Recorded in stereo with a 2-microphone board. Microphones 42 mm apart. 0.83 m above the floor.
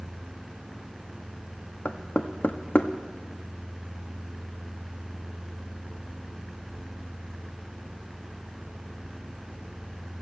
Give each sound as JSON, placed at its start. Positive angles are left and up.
{"t": 1.9, "sound": "knocking", "side_deg": 50, "distance_m": 0.8}